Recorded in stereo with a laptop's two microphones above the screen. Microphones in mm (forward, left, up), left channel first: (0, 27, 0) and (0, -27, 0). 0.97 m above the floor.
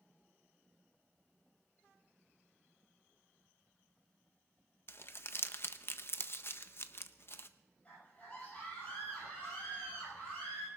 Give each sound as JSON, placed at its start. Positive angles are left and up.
{"t": 4.9, "sound": "crumpling", "side_deg": 50, "distance_m": 0.6}
{"t": 7.8, "sound": "a scream", "side_deg": 30, "distance_m": 10.0}